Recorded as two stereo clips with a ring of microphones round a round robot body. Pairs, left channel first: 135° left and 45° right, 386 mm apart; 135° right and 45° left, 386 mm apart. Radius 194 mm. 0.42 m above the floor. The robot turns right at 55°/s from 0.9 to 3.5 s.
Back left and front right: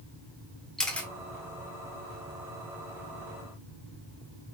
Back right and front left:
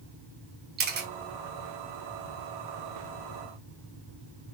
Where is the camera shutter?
50° left, 1.1 m; by 1.1 s 60° left, 1.1 m.